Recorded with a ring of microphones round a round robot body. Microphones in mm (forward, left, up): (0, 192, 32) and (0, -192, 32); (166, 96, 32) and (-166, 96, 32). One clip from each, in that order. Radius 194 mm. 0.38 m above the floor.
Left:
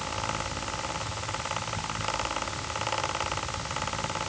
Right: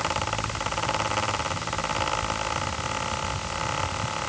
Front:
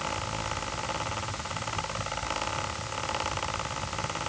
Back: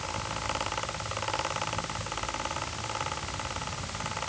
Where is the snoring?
No snoring in this recording.